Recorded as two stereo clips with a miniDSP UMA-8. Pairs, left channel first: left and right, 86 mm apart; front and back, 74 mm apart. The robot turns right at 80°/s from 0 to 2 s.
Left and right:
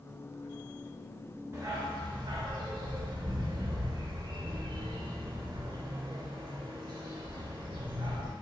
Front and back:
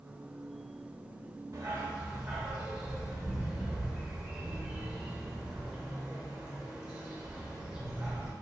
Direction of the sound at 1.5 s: 140° right.